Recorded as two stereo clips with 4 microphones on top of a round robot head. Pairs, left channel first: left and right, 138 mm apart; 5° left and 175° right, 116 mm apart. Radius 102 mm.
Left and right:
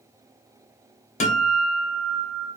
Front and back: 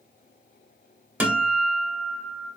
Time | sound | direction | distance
1.2 | a guitar | 110° left | 1.0 m